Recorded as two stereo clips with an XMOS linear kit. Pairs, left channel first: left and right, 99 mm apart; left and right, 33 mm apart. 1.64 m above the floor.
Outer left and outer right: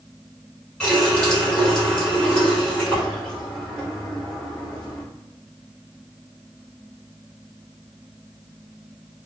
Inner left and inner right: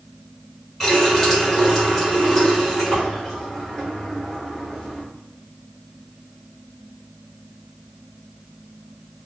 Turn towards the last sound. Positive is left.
turn(degrees=10)  # may be behind; listen again after turning